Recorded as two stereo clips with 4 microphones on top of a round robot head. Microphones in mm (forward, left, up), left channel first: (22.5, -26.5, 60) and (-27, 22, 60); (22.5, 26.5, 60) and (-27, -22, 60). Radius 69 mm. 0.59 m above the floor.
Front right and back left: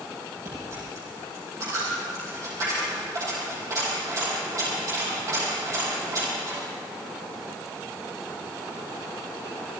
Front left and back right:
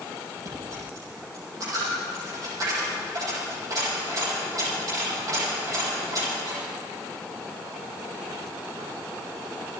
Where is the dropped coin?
175° right, 7.5 m.